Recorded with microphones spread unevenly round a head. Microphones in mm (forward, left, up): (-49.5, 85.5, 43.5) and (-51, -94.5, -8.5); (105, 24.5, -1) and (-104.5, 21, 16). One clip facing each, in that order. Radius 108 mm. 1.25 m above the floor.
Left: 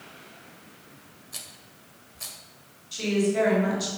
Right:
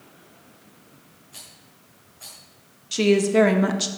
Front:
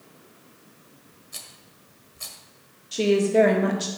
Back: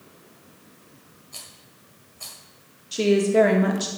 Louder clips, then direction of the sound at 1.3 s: Left 1 dB, even; 70° left.